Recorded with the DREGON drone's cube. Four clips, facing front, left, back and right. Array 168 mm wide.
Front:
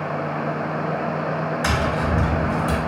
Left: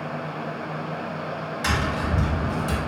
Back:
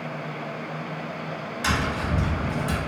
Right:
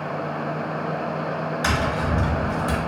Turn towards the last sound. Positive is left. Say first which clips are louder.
# right 1 dB, front 1 dB
turn(degrees=-45)